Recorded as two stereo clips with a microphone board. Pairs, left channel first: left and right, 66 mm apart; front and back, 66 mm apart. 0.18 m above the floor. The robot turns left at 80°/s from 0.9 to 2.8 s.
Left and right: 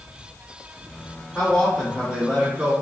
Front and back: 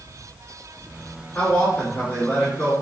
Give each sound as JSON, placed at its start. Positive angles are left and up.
{"t": 1.4, "sound": "a man speaking", "azimuth_deg": 35, "distance_m": 1.5}